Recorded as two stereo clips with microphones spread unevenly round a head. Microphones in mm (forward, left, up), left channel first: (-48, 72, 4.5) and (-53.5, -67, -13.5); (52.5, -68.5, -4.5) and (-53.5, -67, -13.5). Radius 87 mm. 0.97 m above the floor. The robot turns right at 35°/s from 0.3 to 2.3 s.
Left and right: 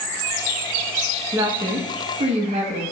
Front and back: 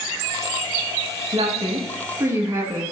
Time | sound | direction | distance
1.3 | a woman speaking | 150° right | 1.3 m